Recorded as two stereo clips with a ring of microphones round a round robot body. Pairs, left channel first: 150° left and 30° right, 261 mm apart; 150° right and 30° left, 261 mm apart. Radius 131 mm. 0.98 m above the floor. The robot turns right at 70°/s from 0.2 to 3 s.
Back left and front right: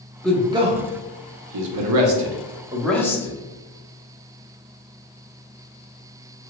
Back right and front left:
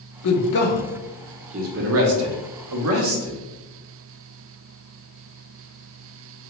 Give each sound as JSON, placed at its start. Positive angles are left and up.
{"t": 0.2, "sound": "a man speaking", "azimuth_deg": -125, "distance_m": 0.6}